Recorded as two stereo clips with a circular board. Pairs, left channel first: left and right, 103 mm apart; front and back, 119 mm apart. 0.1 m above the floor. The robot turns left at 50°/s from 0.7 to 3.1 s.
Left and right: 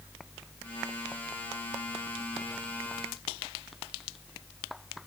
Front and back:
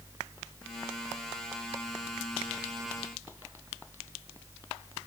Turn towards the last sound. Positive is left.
No sound to turn to.